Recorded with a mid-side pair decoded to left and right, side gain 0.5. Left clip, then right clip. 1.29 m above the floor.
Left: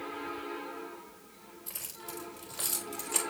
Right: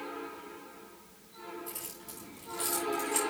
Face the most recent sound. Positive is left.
turn(degrees=35)